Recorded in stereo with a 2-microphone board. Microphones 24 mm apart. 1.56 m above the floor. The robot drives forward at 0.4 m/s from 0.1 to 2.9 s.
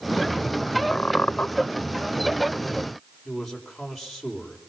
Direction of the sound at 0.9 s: 55° left (ahead or behind).